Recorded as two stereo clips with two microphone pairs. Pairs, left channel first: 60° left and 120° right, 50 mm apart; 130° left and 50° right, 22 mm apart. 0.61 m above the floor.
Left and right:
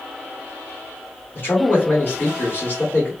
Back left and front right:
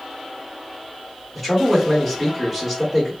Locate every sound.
1.4 s a man speaking: 35° left, 1.8 m